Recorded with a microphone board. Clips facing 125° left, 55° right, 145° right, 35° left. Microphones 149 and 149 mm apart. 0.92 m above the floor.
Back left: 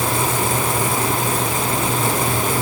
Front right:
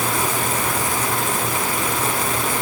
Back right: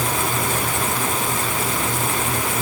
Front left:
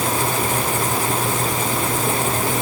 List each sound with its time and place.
Only background noise.